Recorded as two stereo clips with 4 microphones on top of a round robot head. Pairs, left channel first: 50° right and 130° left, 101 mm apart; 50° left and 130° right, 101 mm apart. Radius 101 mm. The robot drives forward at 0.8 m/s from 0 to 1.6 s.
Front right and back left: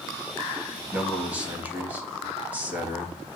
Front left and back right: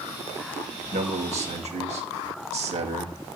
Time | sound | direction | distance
0.9 | a man speaking | 145° right | 3 m